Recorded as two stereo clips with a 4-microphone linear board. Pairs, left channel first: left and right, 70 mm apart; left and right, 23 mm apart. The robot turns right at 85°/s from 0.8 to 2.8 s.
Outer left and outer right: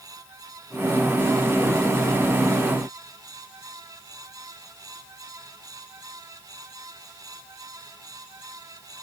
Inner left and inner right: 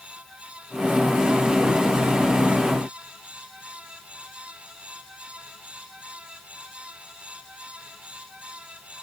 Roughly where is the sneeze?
I don't hear a sneeze.